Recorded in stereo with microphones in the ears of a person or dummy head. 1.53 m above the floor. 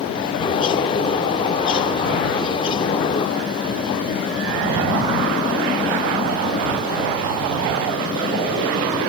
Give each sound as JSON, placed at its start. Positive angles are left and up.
{"t": 0.4, "sound": "a bird", "side_deg": 30}